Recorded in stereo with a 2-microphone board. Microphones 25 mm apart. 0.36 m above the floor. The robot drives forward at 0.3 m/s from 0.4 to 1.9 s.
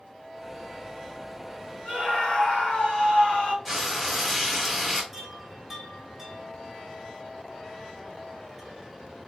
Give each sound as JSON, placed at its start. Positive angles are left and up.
{"t": 1.9, "sound": "a scream", "side_deg": 50, "distance_m": 2.0}
{"t": 3.6, "sound": "frying", "side_deg": 0, "distance_m": 1.0}
{"t": 5.1, "sound": "a chime", "side_deg": -5, "distance_m": 1.5}